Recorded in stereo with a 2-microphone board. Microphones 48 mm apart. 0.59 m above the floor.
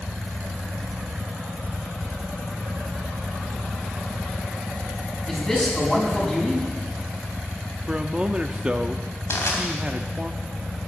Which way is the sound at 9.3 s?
65° left (ahead or behind).